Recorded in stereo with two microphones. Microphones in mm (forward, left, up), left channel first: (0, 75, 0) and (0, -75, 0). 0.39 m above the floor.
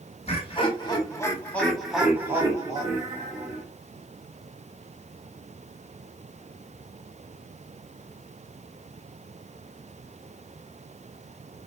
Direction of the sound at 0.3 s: 40° left (ahead or behind).